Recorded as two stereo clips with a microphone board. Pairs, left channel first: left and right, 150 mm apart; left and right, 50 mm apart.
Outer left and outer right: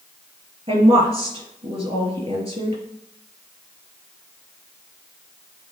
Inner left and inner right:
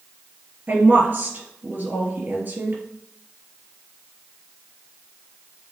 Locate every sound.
0.7 s a woman speaking: 45° right (ahead or behind), 2.5 m